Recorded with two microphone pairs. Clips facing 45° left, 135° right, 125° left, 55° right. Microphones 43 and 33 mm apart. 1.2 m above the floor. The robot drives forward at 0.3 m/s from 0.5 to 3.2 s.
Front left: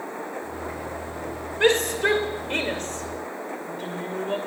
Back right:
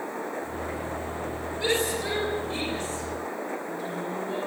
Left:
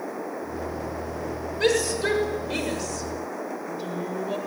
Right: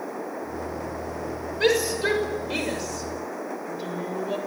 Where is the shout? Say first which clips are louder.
Front left 7 dB, right 1 dB; 20° left, 6 m; by 4.4 s 25° left, 5.5 m.